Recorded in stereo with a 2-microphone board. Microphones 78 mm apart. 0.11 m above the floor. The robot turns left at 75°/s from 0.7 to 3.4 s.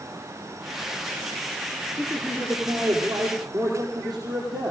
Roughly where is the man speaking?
Ahead.